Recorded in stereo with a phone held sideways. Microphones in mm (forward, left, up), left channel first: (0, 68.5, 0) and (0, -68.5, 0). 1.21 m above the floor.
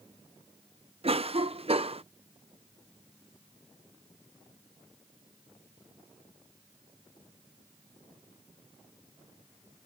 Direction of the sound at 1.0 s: 45° right (ahead or behind).